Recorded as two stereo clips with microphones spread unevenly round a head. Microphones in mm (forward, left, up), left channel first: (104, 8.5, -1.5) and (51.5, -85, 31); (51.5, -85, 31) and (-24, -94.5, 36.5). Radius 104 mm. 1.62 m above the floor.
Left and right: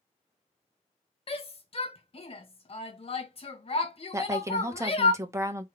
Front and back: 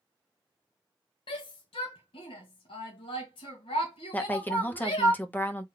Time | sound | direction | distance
1.3 | a shout | 30° left | 1.8 m
4.1 | a woman speaking | 60° right | 1.5 m